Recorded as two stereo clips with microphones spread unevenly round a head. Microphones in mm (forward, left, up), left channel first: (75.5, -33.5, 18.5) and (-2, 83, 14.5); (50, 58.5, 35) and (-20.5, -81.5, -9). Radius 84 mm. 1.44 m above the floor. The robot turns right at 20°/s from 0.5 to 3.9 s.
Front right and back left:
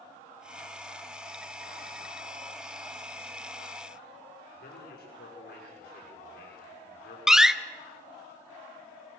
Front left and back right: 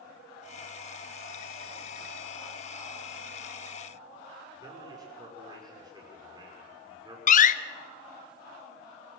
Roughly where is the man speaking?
Ahead right.